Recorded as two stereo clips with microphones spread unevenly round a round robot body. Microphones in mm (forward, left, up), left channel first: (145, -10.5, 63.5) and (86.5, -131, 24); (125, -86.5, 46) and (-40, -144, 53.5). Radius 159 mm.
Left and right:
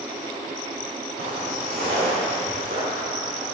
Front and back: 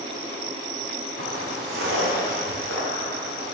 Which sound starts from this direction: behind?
Footsteps, at 1.2 s.